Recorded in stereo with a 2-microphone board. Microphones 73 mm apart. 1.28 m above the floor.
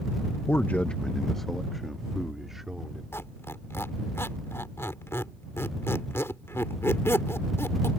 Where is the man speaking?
40° left (ahead or behind); by 3.0 s 5° right (ahead or behind).